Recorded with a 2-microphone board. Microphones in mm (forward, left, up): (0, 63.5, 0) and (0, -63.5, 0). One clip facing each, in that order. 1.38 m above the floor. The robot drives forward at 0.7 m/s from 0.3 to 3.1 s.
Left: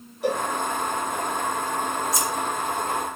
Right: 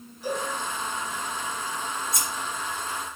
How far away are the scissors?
About 3 m.